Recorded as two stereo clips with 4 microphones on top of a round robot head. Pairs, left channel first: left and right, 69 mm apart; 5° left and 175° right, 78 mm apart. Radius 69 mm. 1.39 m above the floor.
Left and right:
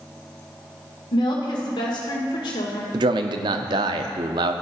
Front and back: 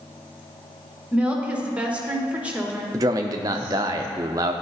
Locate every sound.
1.1 s a woman speaking: 110° left, 1.4 m
2.9 s a man speaking: 120° right, 0.5 m